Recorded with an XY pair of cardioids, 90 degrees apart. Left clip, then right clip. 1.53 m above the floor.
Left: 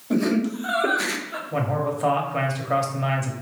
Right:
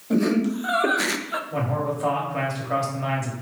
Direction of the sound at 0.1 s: Straight ahead.